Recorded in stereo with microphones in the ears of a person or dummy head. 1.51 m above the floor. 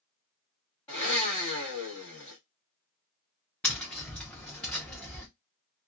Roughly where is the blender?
Centre.